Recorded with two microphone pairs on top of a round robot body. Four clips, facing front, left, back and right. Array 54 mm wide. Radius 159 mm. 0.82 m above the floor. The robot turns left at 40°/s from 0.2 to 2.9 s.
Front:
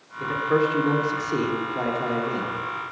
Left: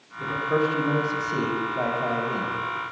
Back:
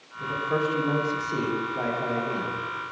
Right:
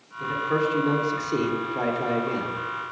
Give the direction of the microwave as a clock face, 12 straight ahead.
No microwave in this recording.